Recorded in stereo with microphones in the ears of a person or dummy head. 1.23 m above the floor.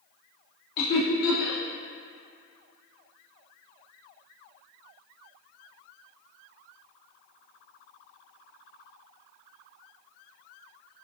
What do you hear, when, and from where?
0.8 s laughter: 60° left (ahead or behind), 0.7 m